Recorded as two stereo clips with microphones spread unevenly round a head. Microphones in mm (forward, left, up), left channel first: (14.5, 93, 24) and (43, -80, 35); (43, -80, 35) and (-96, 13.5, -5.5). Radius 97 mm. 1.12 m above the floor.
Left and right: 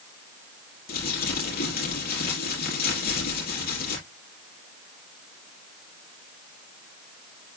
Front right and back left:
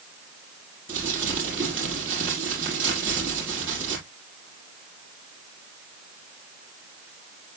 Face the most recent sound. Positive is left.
turn(degrees=60)